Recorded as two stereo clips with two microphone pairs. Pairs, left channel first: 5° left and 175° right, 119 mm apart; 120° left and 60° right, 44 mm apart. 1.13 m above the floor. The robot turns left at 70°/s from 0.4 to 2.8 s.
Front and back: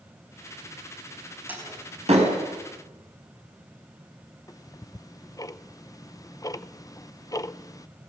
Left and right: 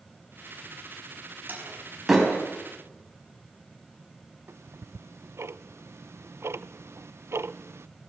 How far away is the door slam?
About 5 m.